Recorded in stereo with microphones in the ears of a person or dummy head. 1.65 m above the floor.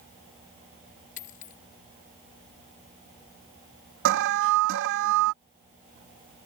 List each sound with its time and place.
1.2 s a dropped coin: 35° left (ahead or behind)
4.0 s an alarm: 60° right (ahead or behind)